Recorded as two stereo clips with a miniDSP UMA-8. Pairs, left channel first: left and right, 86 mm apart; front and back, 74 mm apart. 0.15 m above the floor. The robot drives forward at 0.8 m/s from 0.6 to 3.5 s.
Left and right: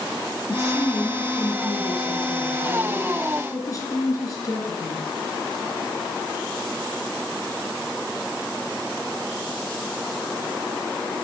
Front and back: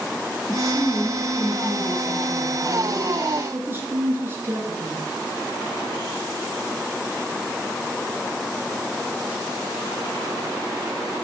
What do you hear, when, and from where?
0.5 s a woman speaking: 35° left, 2 m; by 5.1 s 125° left, 1.8 m